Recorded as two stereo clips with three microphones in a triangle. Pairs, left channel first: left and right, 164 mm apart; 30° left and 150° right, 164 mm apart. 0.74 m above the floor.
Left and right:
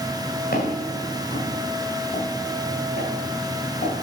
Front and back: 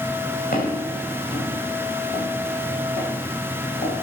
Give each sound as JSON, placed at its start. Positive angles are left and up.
{"t": 0.5, "sound": "footsteps", "azimuth_deg": 70, "distance_m": 7.0}